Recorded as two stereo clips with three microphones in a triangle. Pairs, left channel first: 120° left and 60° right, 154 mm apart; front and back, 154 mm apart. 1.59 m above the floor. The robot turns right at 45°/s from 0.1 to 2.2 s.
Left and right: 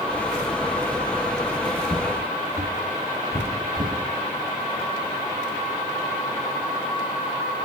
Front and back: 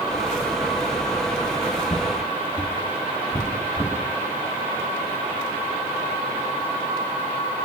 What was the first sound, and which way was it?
Footsteps, 30° left.